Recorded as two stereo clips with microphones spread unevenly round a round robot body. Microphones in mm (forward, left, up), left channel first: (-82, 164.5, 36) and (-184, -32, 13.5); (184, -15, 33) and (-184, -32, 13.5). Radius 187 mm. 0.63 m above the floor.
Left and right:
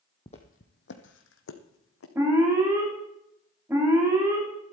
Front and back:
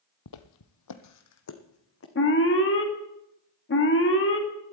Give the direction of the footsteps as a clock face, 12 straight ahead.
12 o'clock.